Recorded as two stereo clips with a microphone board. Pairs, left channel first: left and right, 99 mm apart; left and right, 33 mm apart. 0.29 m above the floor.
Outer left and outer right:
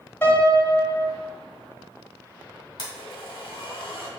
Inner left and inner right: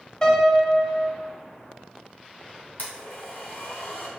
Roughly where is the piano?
Left.